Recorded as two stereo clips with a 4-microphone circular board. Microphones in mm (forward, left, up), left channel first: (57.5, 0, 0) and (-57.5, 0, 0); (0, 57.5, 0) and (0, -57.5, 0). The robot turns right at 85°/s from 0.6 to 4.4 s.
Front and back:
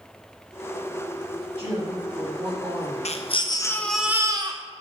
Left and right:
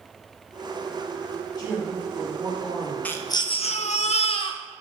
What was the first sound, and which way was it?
A woman speaking, 140° left.